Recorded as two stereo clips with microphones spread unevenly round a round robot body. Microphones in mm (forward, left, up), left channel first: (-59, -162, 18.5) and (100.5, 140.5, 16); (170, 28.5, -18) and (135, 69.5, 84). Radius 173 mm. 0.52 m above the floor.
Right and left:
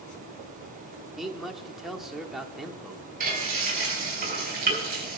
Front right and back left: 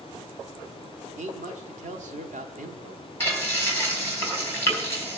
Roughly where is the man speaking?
Behind left.